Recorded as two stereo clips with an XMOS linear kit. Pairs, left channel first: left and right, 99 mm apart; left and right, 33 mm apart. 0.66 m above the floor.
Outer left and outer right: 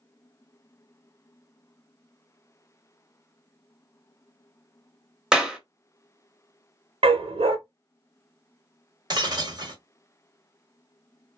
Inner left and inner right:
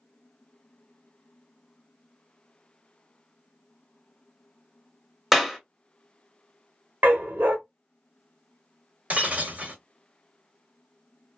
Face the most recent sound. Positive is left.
turn(degrees=-45)  # may be behind; listen again after turning